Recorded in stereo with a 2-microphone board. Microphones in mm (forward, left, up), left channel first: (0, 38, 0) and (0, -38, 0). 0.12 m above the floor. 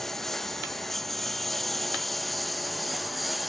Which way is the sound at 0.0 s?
5° left (ahead or behind).